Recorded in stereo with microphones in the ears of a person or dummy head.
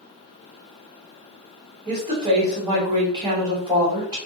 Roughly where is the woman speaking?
Right.